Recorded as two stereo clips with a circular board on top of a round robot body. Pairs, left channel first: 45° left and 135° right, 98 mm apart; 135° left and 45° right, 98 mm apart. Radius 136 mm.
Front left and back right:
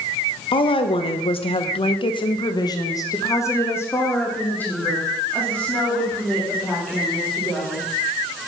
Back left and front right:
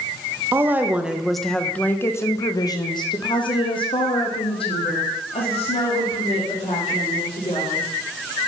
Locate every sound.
0.5 s a woman speaking: 20° left, 1.3 m; by 7.8 s 130° left, 4 m